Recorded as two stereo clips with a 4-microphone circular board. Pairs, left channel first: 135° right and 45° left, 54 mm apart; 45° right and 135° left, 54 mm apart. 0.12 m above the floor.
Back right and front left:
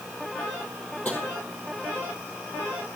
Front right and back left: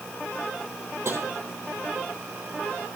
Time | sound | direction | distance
1.1 | tapping | 170° left | 3.5 m